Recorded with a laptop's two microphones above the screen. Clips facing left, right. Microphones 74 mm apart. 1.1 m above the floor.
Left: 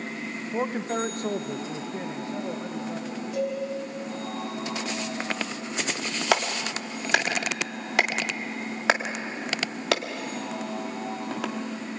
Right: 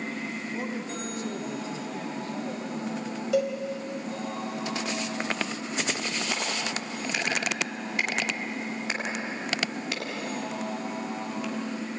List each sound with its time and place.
0.5 s a man speaking: 35° left (ahead or behind), 0.9 m; by 3.2 s 20° left (ahead or behind), 3 m
3.3 s a cowbell: 90° right, 4.5 m
6.3 s a clap: 80° left, 1.6 m